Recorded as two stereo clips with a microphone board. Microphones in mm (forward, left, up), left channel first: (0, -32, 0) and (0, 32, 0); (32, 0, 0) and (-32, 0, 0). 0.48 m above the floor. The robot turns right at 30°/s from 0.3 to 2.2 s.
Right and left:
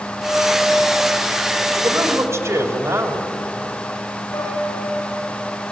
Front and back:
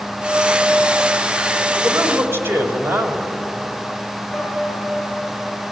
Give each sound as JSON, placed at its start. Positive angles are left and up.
{"t": 1.8, "sound": "a man speaking", "azimuth_deg": 120, "distance_m": 2.5}
{"t": 4.3, "sound": "a piano", "azimuth_deg": -90, "distance_m": 8.5}